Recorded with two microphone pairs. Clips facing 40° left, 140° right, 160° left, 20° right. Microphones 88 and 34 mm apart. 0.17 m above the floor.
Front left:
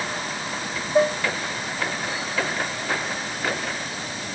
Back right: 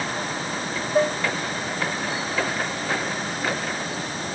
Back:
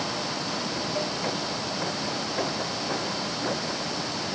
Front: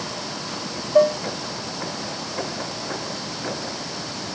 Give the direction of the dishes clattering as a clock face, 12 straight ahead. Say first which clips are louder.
Front left 2 dB, front 18 dB; 1 o'clock.